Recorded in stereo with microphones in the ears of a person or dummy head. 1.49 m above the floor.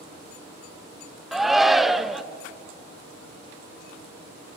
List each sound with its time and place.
1.3 s a shout: centre (ahead or behind), 0.8 m